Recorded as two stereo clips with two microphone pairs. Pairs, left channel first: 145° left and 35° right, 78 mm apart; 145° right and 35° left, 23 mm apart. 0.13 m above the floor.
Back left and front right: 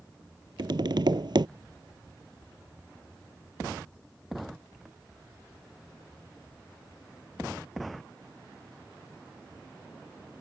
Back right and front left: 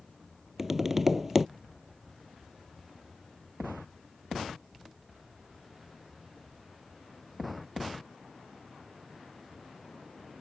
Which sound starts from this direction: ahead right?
Tapping, at 0.6 s.